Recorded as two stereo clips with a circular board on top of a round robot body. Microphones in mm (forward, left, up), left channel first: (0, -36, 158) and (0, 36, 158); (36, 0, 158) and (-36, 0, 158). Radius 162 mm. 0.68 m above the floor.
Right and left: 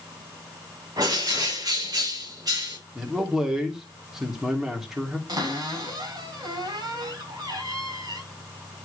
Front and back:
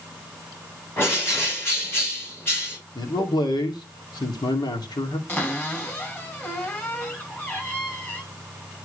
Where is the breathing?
No breathing in this recording.